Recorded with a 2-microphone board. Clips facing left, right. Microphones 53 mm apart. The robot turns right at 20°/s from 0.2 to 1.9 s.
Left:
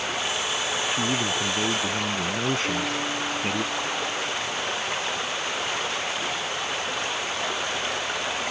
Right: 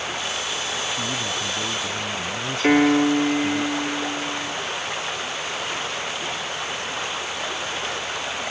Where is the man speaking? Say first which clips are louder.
Left 2 dB; 25° left (ahead or behind); by 3.6 s 35° left (ahead or behind).